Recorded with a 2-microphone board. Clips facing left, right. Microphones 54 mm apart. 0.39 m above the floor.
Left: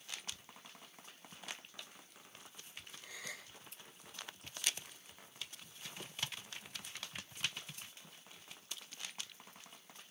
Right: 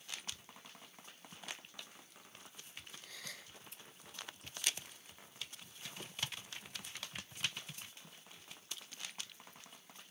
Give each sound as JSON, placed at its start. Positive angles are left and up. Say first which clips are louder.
{"t": 3.0, "sound": "a gasp", "louder": "left 5 dB", "side_deg": 10, "distance_m": 3.0}